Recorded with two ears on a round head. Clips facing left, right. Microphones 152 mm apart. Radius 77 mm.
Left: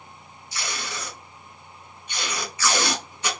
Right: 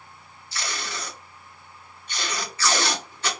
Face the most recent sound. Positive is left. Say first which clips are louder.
# even
turn(degrees=15)  # may be behind; listen again after turning